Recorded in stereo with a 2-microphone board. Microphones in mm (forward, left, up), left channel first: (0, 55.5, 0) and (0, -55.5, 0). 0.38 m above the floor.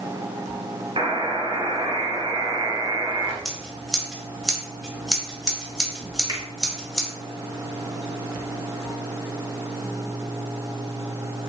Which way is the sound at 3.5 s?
Centre (ahead or behind).